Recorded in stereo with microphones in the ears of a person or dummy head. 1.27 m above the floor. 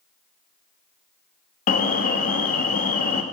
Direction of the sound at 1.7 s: 50° left (ahead or behind).